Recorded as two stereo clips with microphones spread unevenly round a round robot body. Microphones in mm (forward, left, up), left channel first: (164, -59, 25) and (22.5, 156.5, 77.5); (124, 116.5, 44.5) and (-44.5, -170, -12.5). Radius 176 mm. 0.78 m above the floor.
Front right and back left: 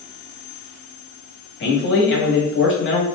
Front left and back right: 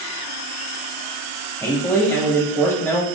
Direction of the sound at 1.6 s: 30° right.